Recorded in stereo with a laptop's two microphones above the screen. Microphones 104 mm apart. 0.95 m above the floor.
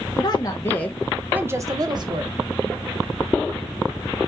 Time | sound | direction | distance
0.2 | a woman speaking | 40° left (ahead or behind) | 1.1 m